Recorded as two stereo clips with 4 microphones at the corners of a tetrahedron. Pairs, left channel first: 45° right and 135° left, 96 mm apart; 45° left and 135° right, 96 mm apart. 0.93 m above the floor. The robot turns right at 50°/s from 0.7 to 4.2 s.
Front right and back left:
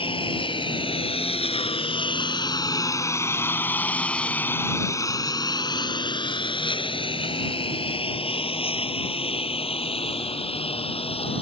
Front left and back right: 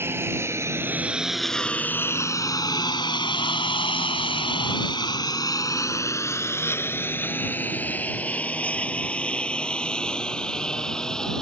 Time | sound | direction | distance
0.0 | a lawn mower | 70° right | ?